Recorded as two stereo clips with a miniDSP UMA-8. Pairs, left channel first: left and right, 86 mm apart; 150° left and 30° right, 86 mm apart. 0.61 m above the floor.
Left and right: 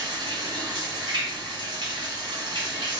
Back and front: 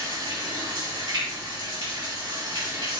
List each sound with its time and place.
0.0 s running water: 60° right, 2.0 m